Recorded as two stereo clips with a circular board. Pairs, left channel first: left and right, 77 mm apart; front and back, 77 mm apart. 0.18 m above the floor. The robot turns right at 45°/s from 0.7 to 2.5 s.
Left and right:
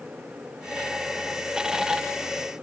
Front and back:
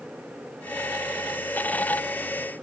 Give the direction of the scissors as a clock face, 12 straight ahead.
I don't hear scissors.